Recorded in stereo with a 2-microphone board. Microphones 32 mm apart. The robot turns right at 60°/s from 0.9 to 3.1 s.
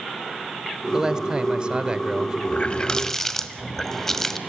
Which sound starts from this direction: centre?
A man speaking, at 0.9 s.